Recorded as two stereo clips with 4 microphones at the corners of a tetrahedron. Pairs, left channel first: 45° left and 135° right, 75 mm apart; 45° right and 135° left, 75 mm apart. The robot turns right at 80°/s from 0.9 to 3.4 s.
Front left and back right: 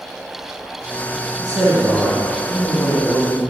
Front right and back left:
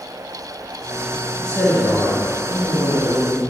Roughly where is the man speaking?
Behind right.